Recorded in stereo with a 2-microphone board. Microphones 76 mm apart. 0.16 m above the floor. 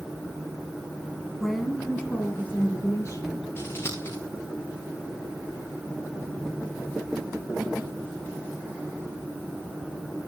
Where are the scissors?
35° left (ahead or behind), 5 m.